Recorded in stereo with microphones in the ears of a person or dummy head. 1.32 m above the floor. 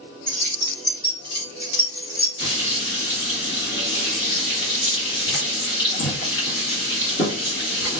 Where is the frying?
65° left (ahead or behind), 1.8 m.